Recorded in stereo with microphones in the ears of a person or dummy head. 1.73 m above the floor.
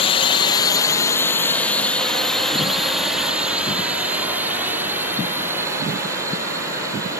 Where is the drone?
30° left (ahead or behind); by 7.2 s 20° right (ahead or behind).